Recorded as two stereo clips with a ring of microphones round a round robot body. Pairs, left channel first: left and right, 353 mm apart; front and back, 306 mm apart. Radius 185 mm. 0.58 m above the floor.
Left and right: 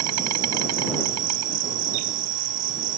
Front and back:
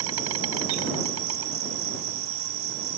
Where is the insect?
130° right.